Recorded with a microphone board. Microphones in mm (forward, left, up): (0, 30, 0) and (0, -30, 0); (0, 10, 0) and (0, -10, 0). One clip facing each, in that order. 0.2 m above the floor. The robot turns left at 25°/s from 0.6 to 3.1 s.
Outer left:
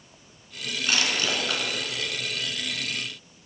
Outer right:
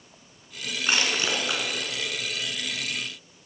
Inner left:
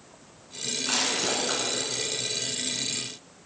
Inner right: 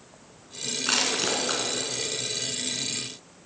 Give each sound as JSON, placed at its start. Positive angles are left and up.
{"t": 0.9, "sound": "crushing", "side_deg": -30, "distance_m": 2.0}